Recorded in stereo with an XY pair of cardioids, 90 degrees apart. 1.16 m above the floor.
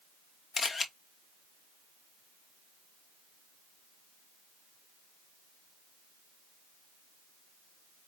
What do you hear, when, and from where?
0.6 s a camera shutter: 45° left, 1.0 m